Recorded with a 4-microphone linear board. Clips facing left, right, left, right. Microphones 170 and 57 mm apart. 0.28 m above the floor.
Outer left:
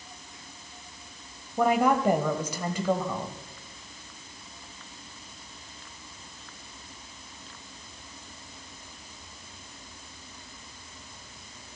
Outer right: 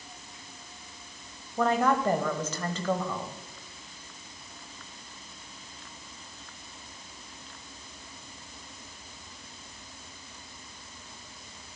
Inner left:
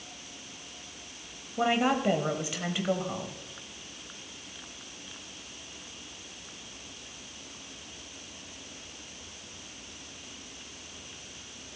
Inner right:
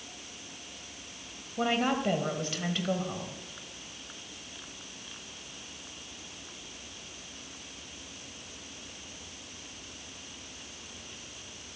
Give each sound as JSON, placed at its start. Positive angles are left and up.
{"t": 1.6, "sound": "a woman speaking", "side_deg": 10, "distance_m": 1.1}